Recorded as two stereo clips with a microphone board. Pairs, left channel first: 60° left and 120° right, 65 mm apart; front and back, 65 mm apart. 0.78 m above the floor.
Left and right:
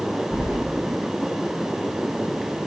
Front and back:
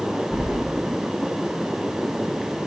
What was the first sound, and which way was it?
Keys jangling, 105° left.